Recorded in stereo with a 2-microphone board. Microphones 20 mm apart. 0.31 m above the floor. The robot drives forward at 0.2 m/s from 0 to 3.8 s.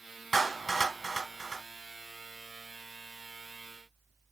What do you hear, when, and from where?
0.3 s a clap: 10° left (ahead or behind), 1.2 m; by 1.6 s 15° left (ahead or behind), 1.0 m